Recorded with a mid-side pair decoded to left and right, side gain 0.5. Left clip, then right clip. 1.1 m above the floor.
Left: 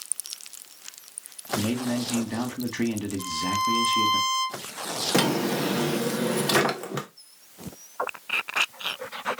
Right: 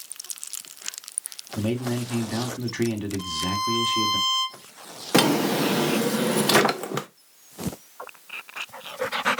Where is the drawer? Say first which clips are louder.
Right 5 dB; 30° right, 0.7 m.